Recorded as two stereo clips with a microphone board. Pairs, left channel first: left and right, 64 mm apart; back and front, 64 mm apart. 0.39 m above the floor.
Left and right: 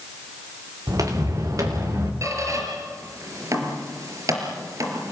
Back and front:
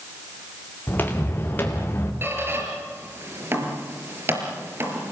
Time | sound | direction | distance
0.9 | footsteps | 120° right | 4 m
2.2 | a squeak | 55° right | 4.5 m